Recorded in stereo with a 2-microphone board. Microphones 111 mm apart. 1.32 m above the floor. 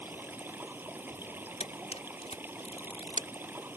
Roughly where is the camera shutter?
Left.